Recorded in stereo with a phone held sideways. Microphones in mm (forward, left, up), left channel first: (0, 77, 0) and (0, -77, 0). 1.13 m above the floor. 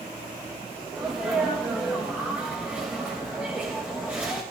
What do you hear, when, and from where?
0.9 s a sneeze: 10° right (ahead or behind), 1.9 m